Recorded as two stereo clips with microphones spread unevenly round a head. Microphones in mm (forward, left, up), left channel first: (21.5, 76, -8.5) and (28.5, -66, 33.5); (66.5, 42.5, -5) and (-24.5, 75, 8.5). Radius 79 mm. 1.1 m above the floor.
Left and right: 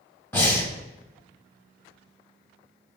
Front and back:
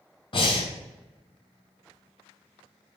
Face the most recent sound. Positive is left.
turn(degrees=15)